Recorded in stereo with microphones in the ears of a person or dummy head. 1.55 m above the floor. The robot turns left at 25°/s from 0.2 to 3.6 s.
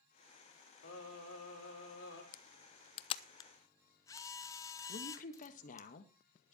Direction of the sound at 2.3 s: 45° left (ahead or behind).